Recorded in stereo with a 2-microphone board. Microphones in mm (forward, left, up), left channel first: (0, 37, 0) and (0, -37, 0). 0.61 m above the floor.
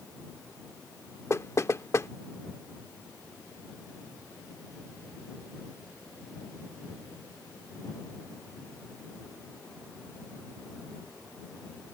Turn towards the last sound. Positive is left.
turn(degrees=40)  # may be behind; listen again after turning